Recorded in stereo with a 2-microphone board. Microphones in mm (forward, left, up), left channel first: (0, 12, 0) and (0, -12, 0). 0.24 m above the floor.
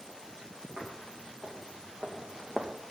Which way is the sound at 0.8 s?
75° right (ahead or behind).